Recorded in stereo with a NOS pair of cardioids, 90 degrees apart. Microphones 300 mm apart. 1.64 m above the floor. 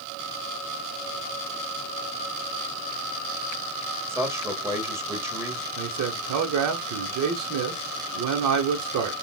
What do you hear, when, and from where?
4.1 s a man speaking: 10° right, 2 m
5.8 s a man speaking: 65° right, 1.2 m